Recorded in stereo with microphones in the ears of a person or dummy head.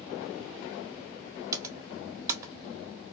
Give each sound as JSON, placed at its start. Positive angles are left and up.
{"t": 1.5, "sound": "typing on a keyboard", "side_deg": -25, "distance_m": 0.5}